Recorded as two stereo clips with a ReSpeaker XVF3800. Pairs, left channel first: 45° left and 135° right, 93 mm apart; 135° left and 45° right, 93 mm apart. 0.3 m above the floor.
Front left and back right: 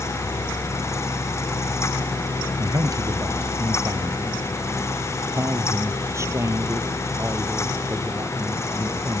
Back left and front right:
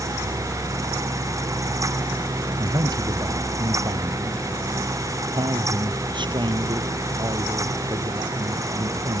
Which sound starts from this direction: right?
A man speaking, at 2.6 s.